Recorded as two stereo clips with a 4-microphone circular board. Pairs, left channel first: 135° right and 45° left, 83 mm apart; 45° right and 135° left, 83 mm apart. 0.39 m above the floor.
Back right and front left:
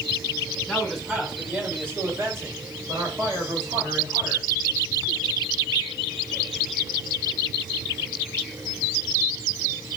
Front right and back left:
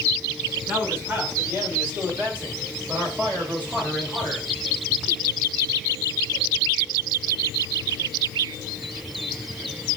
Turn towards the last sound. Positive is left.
turn(degrees=60)